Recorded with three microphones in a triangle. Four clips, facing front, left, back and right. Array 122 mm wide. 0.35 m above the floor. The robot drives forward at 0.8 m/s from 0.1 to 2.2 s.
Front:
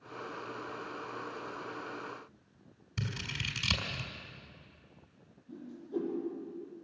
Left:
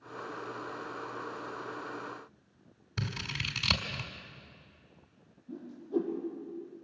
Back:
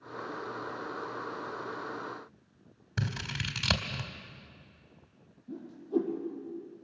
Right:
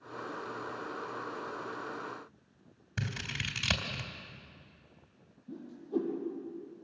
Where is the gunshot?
No gunshot in this recording.